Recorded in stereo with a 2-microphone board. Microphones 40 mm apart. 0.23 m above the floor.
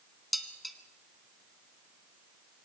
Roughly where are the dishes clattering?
Centre.